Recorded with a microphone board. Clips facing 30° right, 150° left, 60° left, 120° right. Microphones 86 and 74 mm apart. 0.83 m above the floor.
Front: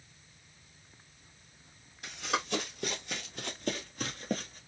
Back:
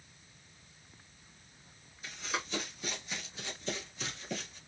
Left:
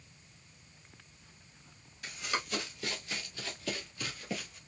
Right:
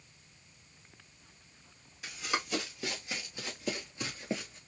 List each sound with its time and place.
2.0 s running footsteps: 40° right, 2 m; by 4.6 s 70° right, 1.3 m